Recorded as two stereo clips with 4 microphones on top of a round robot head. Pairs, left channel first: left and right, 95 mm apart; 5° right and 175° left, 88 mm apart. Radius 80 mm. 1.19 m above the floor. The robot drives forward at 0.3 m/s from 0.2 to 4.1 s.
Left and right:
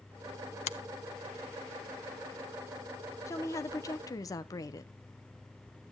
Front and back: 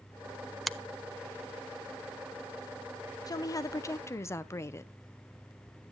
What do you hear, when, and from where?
0.7 s a finger snap: 85° left, 0.6 m; by 0.8 s 90° left, 0.6 m
3.3 s a woman speaking: 35° left, 1.0 m; by 4.9 s 50° left, 0.8 m